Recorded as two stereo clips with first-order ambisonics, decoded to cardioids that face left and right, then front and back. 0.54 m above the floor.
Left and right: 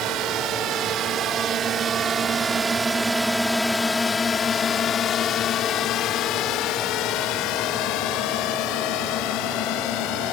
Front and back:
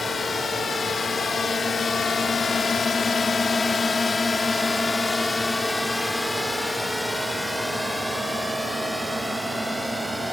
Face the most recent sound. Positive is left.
turn(degrees=95)